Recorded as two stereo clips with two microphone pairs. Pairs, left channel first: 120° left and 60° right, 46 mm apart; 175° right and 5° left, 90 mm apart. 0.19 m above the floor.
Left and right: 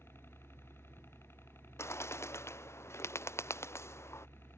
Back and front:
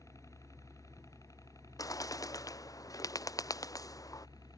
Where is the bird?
135° left.